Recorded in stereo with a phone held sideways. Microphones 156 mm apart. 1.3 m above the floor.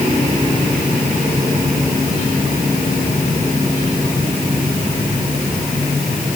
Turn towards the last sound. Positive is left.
No sound to turn to.